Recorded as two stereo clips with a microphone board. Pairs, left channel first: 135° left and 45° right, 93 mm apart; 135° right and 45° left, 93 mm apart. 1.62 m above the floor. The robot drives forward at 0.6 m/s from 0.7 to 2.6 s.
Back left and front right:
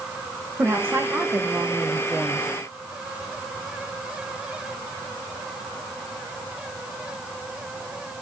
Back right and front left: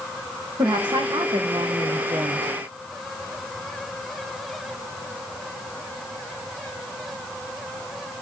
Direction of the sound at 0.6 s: 20° left.